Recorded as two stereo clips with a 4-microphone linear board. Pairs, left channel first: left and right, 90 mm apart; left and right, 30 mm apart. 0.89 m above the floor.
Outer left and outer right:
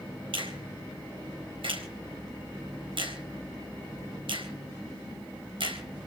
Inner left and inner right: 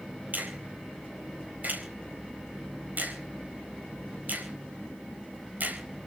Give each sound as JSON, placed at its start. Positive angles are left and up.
{"t": 0.3, "sound": "a finger snap", "side_deg": -70, "distance_m": 4.0}